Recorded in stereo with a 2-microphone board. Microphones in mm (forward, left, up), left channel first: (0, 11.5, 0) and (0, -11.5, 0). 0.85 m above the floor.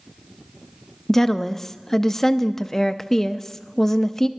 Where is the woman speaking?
20° left (ahead or behind), 0.5 m.